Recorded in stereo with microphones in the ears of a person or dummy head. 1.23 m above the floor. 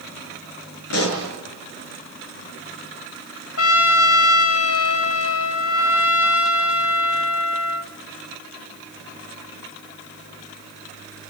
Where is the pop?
80° left, 6 m.